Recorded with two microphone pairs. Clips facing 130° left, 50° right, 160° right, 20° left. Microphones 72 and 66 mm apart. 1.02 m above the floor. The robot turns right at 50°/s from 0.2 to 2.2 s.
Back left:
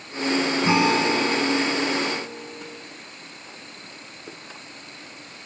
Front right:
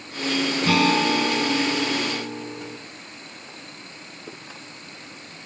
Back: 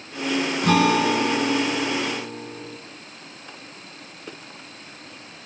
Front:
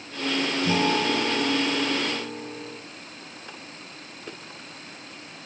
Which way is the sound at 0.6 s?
165° right.